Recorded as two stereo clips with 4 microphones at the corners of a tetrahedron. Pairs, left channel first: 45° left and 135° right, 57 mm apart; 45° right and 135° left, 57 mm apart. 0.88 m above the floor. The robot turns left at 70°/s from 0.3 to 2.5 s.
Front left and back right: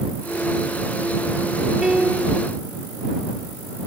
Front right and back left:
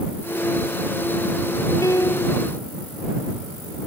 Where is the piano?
55° right; by 2.4 s 100° right.